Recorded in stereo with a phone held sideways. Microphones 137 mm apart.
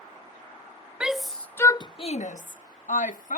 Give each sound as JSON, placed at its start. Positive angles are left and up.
{"t": 1.0, "sound": "a shout", "side_deg": -5}